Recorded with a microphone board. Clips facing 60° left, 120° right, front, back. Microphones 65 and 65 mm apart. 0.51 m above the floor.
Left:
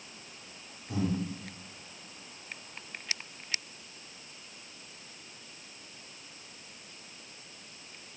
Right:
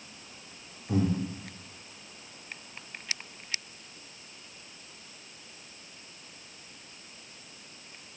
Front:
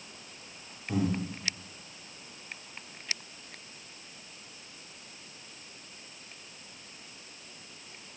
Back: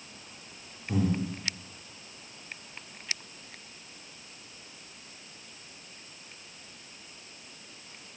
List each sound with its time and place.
0.9 s breathing: 85° right, 0.5 m